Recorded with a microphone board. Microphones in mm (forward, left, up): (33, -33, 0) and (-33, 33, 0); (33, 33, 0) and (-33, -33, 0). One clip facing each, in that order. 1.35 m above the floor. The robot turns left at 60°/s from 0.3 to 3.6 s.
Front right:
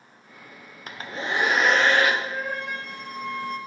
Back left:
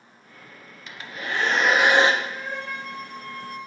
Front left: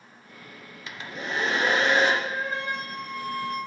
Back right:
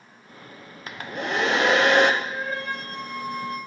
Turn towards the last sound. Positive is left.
turn(degrees=-80)